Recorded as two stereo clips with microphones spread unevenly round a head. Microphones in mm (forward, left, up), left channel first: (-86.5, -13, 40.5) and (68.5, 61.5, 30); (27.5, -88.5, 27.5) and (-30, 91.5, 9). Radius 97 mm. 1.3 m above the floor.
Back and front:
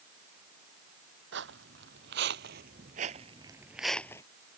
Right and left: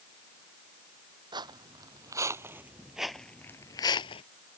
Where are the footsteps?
40° left; by 4.2 s 95° right.